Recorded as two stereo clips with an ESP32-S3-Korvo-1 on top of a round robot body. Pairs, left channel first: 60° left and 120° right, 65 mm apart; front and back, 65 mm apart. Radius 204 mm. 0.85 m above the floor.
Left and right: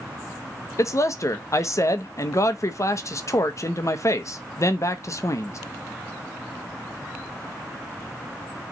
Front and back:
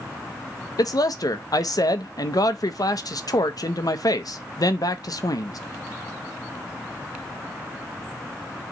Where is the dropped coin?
I don't hear a dropped coin.